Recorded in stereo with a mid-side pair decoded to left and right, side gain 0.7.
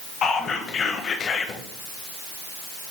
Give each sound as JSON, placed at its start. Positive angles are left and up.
{"t": 0.2, "sound": "whispering", "azimuth_deg": 40, "distance_m": 0.6}